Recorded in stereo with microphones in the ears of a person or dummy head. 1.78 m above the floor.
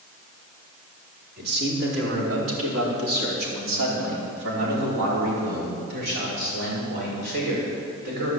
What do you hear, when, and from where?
1.4 s a man speaking: 70° right (ahead or behind), 4.5 m; by 8.3 s 55° right (ahead or behind), 5.5 m